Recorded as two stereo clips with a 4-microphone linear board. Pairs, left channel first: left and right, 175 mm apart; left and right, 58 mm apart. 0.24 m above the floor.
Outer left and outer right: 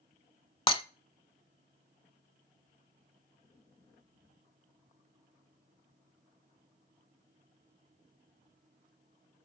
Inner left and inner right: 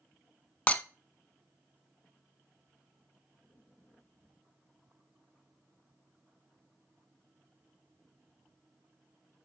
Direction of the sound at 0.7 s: 30° left (ahead or behind).